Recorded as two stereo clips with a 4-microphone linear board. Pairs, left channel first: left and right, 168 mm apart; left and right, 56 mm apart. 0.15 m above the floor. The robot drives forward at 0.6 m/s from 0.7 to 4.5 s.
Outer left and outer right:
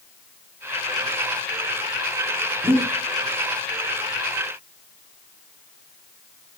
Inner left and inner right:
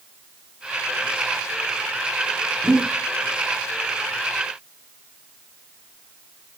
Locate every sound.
2.6 s breathing: 5° right (ahead or behind), 4.5 m